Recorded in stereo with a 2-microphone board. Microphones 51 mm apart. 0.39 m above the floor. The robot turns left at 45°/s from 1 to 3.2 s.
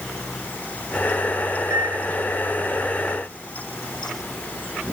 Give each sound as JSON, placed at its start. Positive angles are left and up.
{"t": 1.7, "sound": "a microwave", "side_deg": -85}